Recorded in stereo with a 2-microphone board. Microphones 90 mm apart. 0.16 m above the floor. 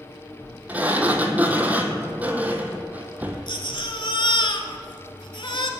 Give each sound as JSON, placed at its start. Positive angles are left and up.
{"t": 0.7, "sound": "a sliding door", "side_deg": -15, "distance_m": 0.9}
{"t": 3.5, "sound": "a baby crying", "side_deg": 60, "distance_m": 0.7}